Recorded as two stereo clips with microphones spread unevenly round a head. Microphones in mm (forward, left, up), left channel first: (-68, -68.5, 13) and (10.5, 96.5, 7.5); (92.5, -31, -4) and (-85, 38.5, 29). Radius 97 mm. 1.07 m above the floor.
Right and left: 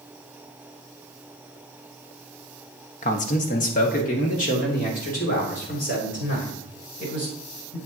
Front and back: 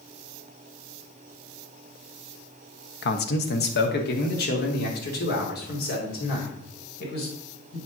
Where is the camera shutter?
No camera shutter in this recording.